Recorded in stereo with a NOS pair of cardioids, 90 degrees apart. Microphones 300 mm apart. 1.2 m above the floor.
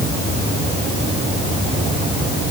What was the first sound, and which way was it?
Only background noise.